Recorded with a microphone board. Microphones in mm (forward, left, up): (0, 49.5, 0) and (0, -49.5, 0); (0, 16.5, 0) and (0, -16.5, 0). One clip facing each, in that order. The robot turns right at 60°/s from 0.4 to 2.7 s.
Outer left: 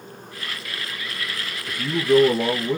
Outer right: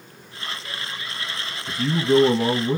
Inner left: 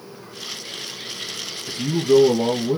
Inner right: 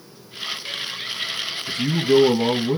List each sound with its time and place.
1.7 s a man speaking: 20° right (ahead or behind), 1.9 m; by 2.8 s 25° right (ahead or behind), 1.9 m